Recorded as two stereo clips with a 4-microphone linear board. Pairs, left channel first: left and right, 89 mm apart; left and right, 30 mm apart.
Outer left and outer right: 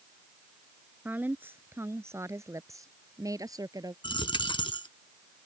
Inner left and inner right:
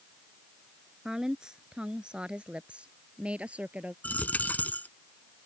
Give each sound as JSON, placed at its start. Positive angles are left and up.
{"t": 1.1, "sound": "a woman speaking", "side_deg": -20}
{"t": 4.0, "sound": "a dropped coin", "side_deg": 65}